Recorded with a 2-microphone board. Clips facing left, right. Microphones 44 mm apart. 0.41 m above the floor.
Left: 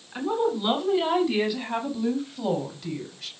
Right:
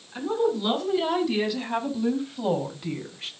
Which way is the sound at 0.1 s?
15° left (ahead or behind).